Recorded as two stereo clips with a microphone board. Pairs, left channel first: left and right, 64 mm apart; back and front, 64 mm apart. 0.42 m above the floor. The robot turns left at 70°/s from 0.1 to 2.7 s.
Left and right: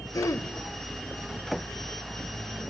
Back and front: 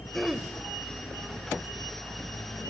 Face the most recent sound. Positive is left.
turn(degrees=-85)